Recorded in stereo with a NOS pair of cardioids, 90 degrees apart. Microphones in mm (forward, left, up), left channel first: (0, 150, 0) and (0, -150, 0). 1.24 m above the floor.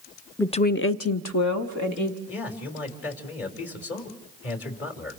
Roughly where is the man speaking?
Ahead left.